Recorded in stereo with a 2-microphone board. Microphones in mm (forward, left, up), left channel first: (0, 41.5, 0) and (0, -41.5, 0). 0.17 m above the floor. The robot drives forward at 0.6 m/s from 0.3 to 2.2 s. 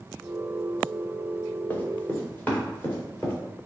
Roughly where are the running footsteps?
Left.